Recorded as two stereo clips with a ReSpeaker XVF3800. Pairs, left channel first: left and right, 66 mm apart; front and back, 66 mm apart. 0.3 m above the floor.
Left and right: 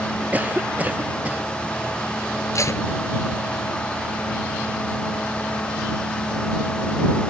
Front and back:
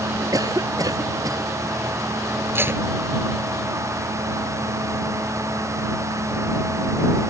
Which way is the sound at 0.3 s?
155° right.